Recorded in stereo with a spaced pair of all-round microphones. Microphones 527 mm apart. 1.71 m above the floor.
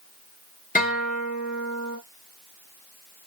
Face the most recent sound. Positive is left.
turn(degrees=15)  # may be behind; listen again after turning